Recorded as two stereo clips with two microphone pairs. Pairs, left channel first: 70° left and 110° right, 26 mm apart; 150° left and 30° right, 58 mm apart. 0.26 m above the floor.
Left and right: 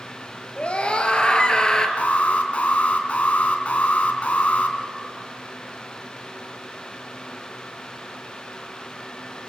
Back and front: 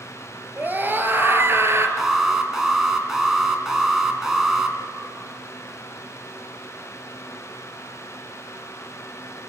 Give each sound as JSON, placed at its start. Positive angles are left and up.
{"t": 0.6, "sound": "a scream", "azimuth_deg": 30, "distance_m": 4.0}
{"t": 2.0, "sound": "an alarm", "azimuth_deg": 50, "distance_m": 3.0}